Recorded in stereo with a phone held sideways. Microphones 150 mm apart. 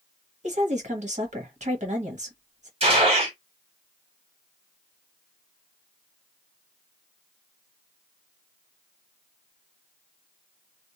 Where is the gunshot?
40° right (ahead or behind), 1.6 m.